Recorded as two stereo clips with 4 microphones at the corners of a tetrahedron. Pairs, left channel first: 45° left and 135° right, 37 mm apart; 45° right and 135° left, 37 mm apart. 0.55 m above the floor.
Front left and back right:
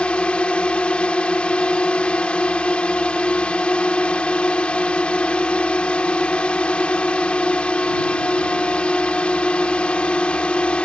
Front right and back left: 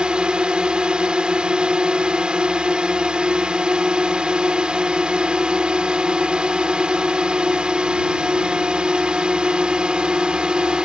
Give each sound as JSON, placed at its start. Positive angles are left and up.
{"t": 0.0, "sound": "a drone", "azimuth_deg": 85}